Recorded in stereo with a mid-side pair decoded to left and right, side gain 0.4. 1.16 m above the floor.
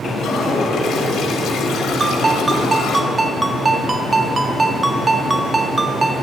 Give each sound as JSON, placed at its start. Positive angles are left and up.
{"t": 0.2, "sound": "a toilet flushing", "azimuth_deg": 65, "distance_m": 3.5}
{"t": 2.0, "sound": "a ringtone", "azimuth_deg": -30, "distance_m": 1.6}